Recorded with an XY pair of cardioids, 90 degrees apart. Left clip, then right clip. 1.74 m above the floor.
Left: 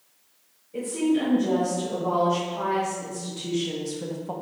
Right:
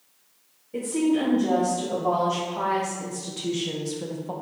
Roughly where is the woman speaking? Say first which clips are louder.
Right 1 dB; ahead right.